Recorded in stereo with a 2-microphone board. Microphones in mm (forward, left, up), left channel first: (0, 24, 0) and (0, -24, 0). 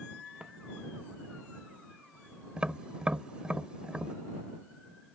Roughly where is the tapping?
Centre.